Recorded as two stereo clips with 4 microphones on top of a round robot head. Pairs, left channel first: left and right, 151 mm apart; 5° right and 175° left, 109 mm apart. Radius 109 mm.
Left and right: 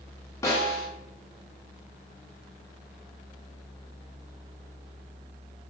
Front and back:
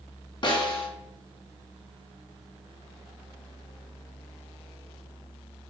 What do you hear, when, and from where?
0.4 s a snare drum: 25° left, 0.7 m